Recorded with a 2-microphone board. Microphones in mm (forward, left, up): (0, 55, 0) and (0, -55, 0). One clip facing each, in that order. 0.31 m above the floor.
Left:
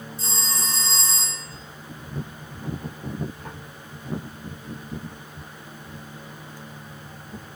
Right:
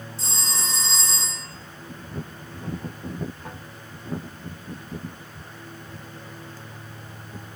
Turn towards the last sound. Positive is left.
turn(degrees=-75)  # may be behind; listen again after turning